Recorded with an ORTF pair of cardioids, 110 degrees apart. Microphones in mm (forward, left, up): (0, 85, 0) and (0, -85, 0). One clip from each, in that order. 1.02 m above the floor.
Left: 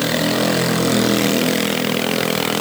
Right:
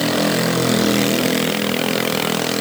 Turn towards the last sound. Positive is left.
No sound to turn to.